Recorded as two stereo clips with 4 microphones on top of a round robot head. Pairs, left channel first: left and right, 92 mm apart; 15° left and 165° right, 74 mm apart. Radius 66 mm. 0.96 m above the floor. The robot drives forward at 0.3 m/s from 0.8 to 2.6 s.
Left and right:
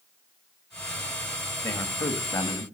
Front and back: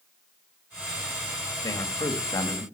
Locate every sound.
1.6 s a man speaking: 50° left, 2.5 m; by 2.6 s 55° left, 2 m